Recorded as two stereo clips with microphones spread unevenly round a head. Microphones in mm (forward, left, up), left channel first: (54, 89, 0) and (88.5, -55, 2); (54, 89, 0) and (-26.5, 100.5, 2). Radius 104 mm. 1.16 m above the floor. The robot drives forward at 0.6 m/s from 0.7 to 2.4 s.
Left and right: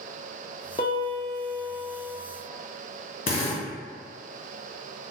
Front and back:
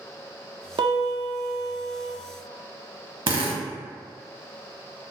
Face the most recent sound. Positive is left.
turn(degrees=155)